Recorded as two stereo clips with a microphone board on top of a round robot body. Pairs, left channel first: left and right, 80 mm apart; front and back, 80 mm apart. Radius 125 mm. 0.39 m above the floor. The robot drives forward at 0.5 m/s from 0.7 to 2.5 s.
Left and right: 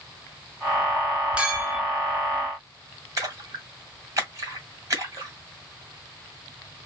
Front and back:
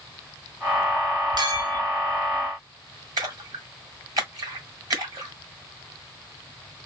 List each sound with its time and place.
1.4 s a clink: 165° right, 1.2 m; by 1.8 s 170° right, 1.4 m
3.2 s a splash: 140° right, 1.5 m